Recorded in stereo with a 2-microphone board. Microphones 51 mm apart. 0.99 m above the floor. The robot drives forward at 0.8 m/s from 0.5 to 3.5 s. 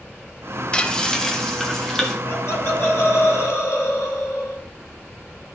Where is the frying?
20° left (ahead or behind), 0.5 m; by 2.1 s 5° left (ahead or behind), 1.5 m.